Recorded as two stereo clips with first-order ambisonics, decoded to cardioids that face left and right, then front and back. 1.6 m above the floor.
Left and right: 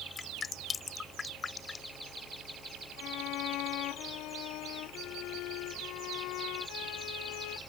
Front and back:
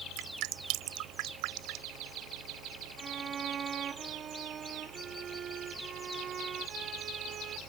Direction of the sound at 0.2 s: 165° left.